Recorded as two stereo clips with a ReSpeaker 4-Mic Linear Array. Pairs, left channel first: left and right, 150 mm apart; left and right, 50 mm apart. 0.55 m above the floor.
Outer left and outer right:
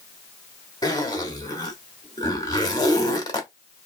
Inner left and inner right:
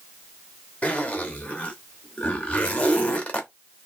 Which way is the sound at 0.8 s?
25° left (ahead or behind).